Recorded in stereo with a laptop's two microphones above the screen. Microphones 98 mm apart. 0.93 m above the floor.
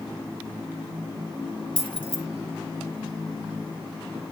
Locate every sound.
1.8 s keys jangling: 60° left (ahead or behind), 1.7 m